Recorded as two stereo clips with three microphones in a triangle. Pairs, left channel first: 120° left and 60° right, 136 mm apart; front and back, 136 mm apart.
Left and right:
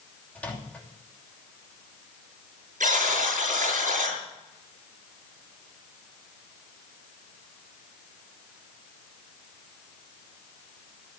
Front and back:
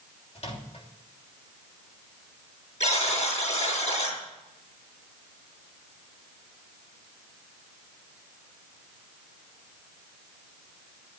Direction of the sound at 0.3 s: 40° left.